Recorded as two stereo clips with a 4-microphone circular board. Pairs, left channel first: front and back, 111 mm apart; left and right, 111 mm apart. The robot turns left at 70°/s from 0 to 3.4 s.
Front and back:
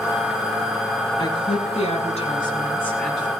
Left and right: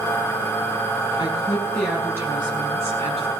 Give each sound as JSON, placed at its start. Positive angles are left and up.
{"t": 1.2, "sound": "a woman speaking", "azimuth_deg": 45, "distance_m": 6.0}